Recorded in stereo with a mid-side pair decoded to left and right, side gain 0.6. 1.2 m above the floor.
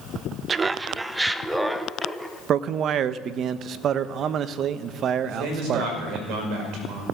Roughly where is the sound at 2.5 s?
Ahead right.